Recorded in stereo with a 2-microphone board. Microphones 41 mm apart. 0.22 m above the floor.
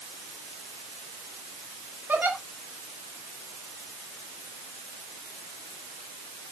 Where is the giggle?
50° right (ahead or behind), 2 m.